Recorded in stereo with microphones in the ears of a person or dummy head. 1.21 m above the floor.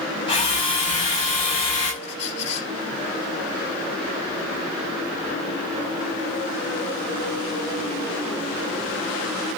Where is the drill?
25° left (ahead or behind), 4.5 m.